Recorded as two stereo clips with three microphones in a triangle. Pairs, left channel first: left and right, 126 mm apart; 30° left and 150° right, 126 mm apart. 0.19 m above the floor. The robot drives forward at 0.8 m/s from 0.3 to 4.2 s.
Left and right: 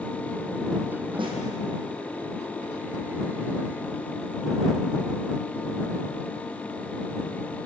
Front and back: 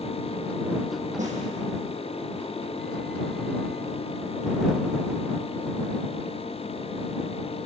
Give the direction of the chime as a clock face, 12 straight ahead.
No chime in this recording.